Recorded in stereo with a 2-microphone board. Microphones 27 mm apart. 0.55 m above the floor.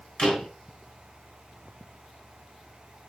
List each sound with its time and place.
0.2 s a door slam: 25° left (ahead or behind), 3.5 m